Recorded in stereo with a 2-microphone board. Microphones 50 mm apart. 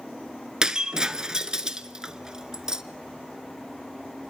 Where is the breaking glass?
15° right (ahead or behind), 0.9 m.